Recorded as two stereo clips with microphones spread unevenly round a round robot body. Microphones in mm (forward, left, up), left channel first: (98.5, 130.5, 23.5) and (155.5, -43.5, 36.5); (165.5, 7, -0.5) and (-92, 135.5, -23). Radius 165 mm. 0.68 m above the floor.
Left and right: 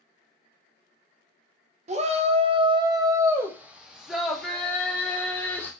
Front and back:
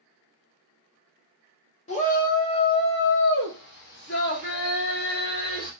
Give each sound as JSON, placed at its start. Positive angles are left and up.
{"t": 1.9, "sound": "a shout", "azimuth_deg": -85, "distance_m": 0.9}